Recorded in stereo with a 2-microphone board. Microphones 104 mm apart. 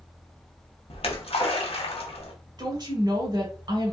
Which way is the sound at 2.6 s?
40° right (ahead or behind).